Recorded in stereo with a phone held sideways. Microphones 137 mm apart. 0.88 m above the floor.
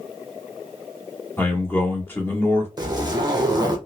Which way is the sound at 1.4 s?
15° left (ahead or behind).